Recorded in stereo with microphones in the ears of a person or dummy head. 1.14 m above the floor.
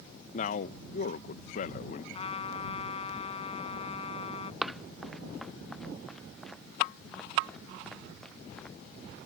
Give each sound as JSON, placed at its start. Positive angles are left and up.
{"t": 0.3, "sound": "a man speaking", "side_deg": 45}
{"t": 2.1, "sound": "a trumpet", "side_deg": 35}
{"t": 4.6, "sound": "running footsteps", "side_deg": 0}